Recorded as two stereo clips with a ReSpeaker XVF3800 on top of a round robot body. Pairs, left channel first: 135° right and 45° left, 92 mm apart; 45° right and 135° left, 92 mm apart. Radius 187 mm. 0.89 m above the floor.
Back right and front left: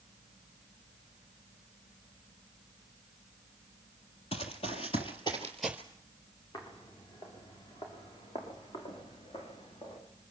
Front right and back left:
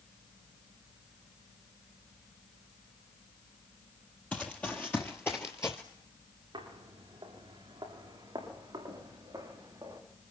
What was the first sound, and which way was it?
Running footsteps, 120° right.